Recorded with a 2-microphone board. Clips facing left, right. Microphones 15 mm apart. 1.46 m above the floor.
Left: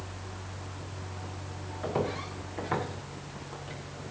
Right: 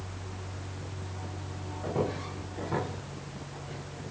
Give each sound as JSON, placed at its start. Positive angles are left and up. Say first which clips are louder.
{"t": 1.8, "sound": "footsteps", "louder": "even", "side_deg": 70, "distance_m": 8.0}